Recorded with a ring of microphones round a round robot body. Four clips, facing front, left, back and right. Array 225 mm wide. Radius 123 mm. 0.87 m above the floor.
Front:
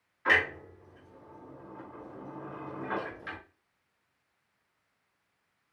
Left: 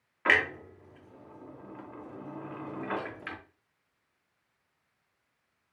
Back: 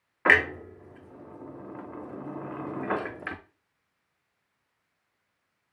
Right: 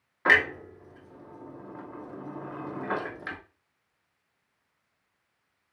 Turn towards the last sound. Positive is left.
turn(degrees=-160)